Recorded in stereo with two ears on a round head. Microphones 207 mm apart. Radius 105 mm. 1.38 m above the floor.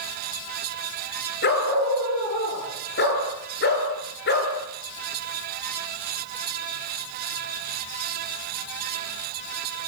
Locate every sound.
1.4 s a dog barking: 50° left (ahead or behind), 8 m